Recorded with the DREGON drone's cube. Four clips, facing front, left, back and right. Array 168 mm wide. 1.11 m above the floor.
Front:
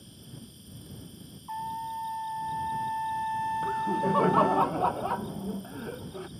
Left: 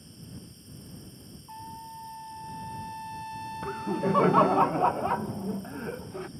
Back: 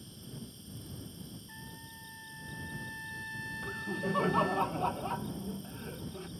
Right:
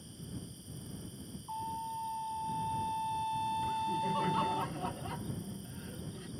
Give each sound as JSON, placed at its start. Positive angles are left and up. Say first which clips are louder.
{"t": 0.0, "sound": "an insect", "louder": "even, back 1 dB", "azimuth_deg": 120}
{"t": 1.5, "sound": "a trumpet", "louder": "right 3 dB, front 17 dB", "azimuth_deg": -15}
{"t": 3.6, "sound": "laughter", "louder": "left 4 dB, front 6 dB", "azimuth_deg": 65}